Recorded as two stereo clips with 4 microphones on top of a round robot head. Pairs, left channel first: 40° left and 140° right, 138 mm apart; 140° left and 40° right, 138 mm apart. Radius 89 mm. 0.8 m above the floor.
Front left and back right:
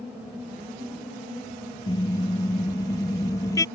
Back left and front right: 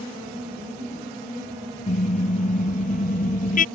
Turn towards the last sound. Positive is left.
turn(degrees=110)